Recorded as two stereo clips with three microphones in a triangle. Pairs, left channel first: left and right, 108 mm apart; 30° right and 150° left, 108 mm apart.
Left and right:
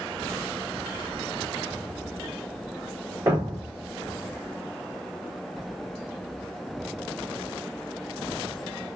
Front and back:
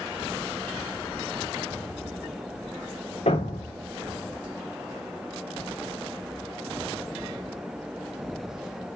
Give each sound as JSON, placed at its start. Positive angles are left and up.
{"t": 3.3, "sound": "a thud", "azimuth_deg": -30, "distance_m": 4.0}